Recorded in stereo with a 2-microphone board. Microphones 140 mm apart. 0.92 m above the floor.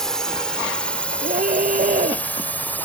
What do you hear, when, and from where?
0.0 s a drone: 5° left (ahead or behind); by 2.9 s 15° left (ahead or behind)
1.2 s a scream: 90° right